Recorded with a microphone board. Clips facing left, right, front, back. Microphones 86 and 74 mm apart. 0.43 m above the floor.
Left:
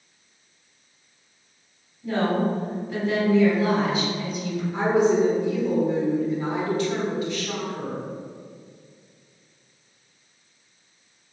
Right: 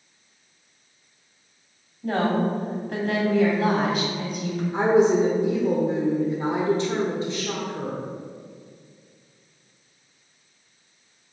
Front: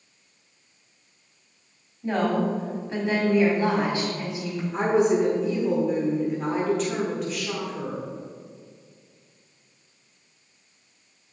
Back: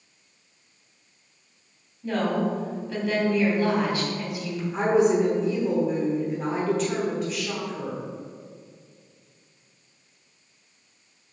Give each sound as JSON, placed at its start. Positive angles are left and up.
{"t": 2.0, "sound": "a woman speaking", "azimuth_deg": -60, "distance_m": 2.5}
{"t": 4.7, "sound": "a woman speaking", "azimuth_deg": -90, "distance_m": 1.4}